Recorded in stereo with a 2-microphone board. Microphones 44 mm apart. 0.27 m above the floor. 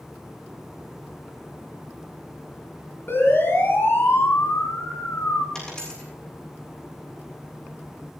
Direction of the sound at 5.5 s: 20° left (ahead or behind).